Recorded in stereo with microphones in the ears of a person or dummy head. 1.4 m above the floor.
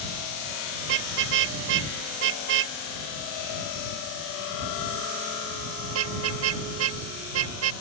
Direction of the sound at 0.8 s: 65° right (ahead or behind).